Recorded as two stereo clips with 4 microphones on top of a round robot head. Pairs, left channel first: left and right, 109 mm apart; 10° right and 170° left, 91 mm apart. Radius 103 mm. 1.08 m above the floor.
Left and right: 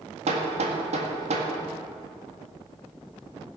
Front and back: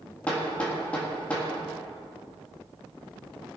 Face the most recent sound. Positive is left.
turn(degrees=-90)